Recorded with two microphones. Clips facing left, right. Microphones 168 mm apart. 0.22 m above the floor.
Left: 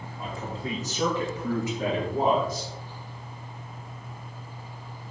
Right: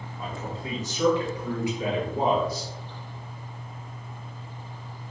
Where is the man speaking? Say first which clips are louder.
Left 1 dB; 35° left (ahead or behind), 3.5 m; by 2.7 s 50° left (ahead or behind), 4.5 m.